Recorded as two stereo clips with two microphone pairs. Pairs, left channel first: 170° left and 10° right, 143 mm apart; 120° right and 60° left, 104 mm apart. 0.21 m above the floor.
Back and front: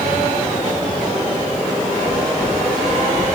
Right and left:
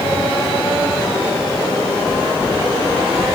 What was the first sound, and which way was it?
Only background noise.